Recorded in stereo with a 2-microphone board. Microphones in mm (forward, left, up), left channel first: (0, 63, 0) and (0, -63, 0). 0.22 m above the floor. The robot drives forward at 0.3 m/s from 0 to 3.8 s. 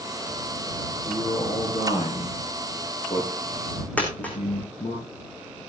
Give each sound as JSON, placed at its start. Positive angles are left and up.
{"t": 1.1, "sound": "a man speaking", "side_deg": 55, "distance_m": 5.0}
{"t": 4.0, "sound": "a dropped coin", "side_deg": 10, "distance_m": 4.5}